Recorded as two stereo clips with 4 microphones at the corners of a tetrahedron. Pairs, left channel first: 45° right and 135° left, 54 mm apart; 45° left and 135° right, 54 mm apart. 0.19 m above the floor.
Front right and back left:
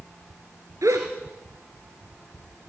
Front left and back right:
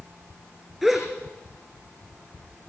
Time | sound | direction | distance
0.8 | a gasp | 135° left | 4.5 m